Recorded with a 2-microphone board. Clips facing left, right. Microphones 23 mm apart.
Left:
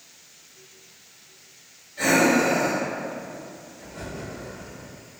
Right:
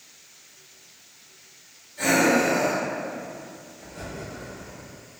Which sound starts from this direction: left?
Breathing, at 2.0 s.